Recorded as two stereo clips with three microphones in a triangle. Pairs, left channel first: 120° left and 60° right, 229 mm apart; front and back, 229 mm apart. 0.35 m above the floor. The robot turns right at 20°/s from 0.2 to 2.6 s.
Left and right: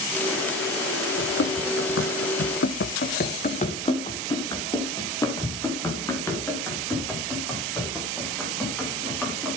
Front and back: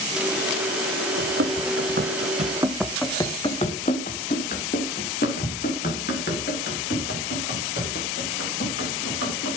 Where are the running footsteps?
150° left, 1.9 m; by 9.6 s 35° left, 9.5 m.